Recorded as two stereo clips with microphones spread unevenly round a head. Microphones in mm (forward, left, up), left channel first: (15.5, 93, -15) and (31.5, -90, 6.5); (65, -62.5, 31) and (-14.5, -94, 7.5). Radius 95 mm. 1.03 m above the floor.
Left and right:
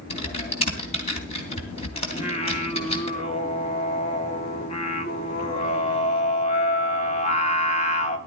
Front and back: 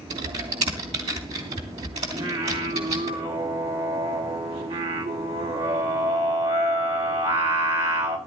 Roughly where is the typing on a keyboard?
Behind.